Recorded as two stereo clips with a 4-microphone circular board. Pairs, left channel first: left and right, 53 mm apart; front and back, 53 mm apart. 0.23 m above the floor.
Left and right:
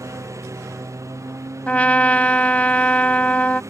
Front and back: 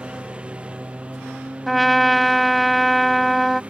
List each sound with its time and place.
0.0 s a lawn mower: 110° right
1.7 s a trumpet: 90° left